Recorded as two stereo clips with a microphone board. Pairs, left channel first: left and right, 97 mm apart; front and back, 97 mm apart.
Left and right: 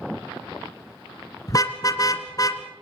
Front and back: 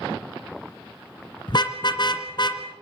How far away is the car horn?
About 2 m.